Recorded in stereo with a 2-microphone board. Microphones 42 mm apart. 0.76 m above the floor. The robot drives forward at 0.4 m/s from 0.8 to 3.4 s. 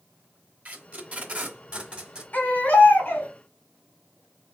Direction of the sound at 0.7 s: 40° right (ahead or behind).